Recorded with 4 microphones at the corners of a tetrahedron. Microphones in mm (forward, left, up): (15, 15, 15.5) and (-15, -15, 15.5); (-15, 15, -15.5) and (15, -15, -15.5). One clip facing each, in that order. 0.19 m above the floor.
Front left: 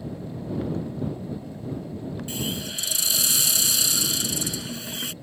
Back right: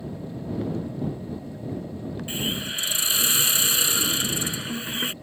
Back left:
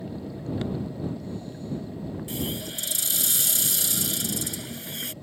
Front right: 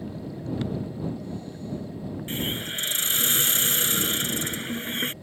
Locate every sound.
2.3 s a hiss: 80° right